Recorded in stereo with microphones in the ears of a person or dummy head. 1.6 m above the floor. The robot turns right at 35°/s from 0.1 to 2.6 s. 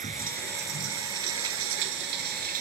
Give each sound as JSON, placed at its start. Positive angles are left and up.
{"t": 0.0, "sound": "running water", "azimuth_deg": -140}